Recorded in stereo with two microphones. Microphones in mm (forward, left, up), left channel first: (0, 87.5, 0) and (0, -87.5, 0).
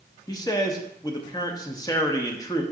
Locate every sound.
0.3 s a man speaking: 20° left (ahead or behind), 0.6 m